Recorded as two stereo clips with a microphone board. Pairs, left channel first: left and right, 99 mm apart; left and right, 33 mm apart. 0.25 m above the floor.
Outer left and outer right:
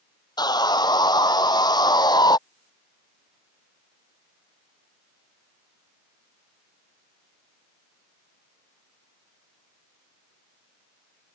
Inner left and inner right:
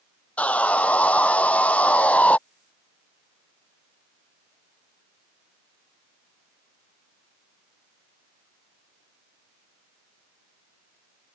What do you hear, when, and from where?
0.4 s sawing: 45° left (ahead or behind)